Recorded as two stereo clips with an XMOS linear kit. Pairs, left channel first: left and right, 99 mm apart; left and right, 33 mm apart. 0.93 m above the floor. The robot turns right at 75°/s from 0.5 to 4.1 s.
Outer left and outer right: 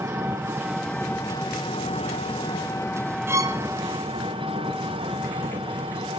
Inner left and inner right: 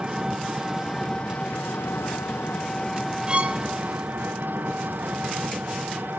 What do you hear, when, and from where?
0.0 s an engine running: 25° right, 7 m; by 6.2 s 115° right, 7 m
3.3 s a violin: 25° right (ahead or behind), 3 m; by 3.6 s 50° right (ahead or behind), 3 m